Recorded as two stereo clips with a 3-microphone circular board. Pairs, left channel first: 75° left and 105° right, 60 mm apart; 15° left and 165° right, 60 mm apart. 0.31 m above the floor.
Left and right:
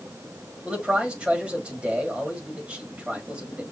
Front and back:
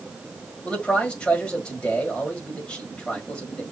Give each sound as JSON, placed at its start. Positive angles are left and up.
{"t": 0.6, "sound": "a man speaking", "azimuth_deg": -50, "distance_m": 1.6}